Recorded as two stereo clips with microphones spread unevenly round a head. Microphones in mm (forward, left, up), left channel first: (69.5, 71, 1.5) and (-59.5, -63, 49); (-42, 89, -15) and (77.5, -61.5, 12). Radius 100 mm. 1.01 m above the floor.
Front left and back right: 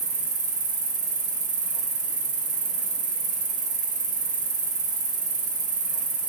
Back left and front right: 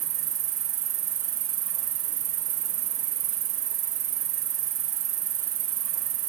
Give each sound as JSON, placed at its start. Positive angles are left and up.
{"t": 0.0, "sound": "an insect", "azimuth_deg": -80, "distance_m": 1.6}